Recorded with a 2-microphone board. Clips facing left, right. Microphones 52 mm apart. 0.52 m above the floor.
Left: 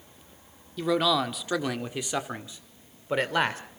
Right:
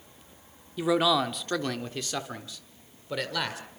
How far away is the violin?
No violin in this recording.